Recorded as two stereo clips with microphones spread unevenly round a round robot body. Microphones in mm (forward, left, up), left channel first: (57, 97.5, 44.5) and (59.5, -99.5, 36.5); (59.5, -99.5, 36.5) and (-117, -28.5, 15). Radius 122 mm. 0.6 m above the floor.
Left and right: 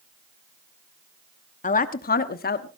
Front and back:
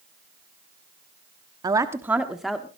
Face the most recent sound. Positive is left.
turn(degrees=70)